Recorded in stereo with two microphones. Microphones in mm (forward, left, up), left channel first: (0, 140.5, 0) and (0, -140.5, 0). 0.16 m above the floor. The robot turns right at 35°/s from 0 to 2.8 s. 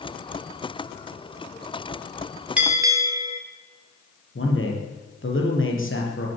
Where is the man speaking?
45° left (ahead or behind), 4.5 m.